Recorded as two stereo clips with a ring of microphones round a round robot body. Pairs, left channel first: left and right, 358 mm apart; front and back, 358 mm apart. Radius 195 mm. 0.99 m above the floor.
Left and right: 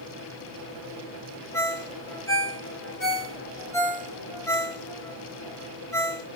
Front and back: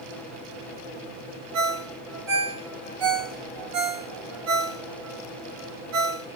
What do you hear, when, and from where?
1.5 s a ringtone: 170° left, 2.0 m